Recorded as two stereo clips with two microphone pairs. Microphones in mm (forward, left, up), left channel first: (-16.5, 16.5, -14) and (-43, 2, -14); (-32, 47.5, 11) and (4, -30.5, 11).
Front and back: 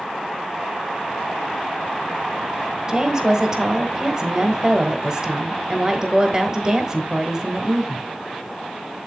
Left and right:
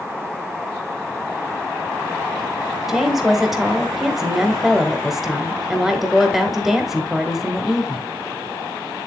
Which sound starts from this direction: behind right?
A woman speaking, at 2.9 s.